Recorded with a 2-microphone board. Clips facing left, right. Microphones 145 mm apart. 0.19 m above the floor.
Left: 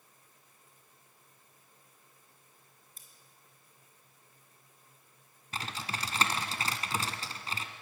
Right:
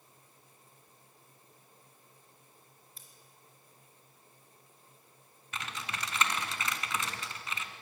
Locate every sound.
3.0 s scissors: 45° left (ahead or behind), 3.5 m
5.5 s typing on a keyboard: 35° left (ahead or behind), 1.5 m